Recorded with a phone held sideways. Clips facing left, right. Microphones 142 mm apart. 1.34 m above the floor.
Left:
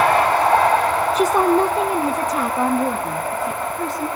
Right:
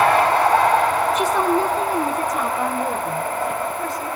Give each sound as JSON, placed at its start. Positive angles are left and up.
{"t": 1.1, "sound": "a woman speaking", "side_deg": 30, "distance_m": 0.7}